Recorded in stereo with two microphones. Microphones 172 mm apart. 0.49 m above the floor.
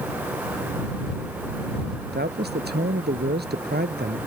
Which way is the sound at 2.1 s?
75° right (ahead or behind).